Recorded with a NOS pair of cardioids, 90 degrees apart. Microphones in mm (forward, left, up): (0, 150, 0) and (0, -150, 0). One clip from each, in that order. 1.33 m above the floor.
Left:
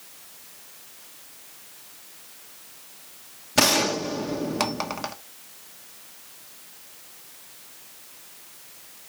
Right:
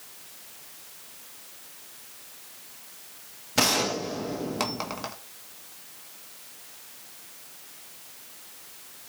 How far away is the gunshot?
About 1.3 m.